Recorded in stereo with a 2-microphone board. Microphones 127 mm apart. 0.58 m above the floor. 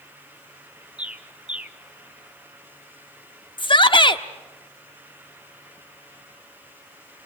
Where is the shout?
40° left (ahead or behind), 1.0 m.